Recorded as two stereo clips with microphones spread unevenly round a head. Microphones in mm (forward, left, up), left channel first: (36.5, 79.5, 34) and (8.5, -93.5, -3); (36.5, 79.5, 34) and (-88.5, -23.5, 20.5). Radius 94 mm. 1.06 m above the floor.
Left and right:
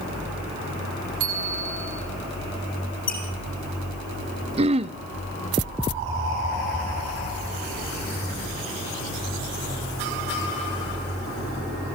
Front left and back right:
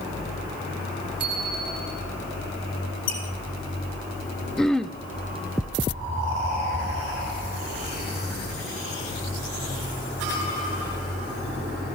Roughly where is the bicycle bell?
Right.